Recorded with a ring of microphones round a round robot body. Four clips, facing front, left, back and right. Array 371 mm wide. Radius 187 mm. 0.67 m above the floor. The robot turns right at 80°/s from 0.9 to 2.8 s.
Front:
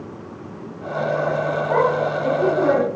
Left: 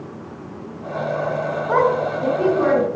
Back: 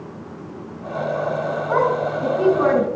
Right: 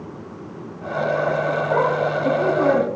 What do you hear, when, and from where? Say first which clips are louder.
1.7 s a woman speaking: left 4 dB, even; 95° left, 3.5 m; by 2.9 s straight behind, 3.5 m